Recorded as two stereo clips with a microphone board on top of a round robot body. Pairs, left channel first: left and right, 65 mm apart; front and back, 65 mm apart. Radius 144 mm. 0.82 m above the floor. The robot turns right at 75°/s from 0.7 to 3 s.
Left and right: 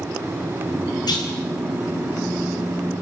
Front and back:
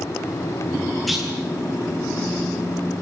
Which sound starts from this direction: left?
A clunk, at 1.1 s.